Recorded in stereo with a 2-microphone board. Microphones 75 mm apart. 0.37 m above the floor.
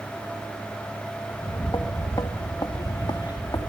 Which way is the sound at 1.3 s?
45° left (ahead or behind).